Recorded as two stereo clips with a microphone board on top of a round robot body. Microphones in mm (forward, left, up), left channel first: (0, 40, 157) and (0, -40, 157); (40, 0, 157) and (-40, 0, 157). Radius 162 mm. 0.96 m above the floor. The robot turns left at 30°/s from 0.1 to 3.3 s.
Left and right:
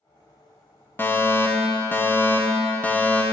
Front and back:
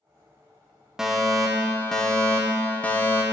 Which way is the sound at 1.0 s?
100° left.